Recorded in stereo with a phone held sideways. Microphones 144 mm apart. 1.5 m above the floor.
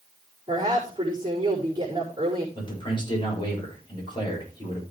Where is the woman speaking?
25° right (ahead or behind), 4.5 m.